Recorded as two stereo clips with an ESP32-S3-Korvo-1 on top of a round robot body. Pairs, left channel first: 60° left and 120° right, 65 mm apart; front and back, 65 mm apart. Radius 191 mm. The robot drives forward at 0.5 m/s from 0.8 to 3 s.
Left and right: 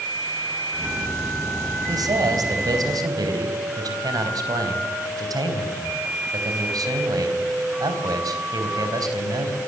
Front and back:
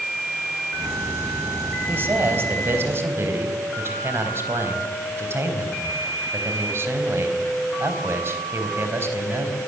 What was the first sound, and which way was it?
A man speaking, 125° right.